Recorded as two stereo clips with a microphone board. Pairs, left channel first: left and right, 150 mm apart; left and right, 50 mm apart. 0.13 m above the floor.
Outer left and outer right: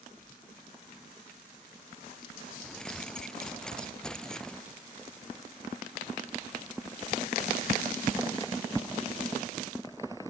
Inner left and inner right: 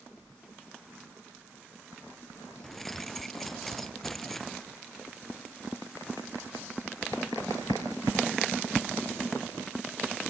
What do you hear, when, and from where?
2.6 s keys jangling: 5° left (ahead or behind)